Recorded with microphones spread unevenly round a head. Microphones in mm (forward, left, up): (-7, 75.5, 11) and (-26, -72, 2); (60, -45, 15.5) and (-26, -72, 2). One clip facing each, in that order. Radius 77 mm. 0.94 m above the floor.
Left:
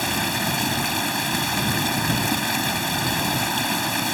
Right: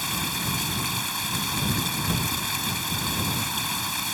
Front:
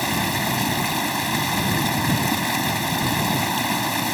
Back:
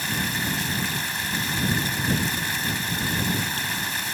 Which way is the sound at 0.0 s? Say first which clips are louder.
Left 7 dB, front 5 dB; 45° left.